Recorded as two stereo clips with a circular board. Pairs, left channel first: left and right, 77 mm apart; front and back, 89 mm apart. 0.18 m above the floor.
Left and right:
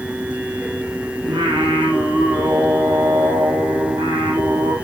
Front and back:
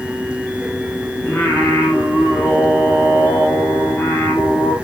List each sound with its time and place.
1.2 s singing: 80° right, 8.5 m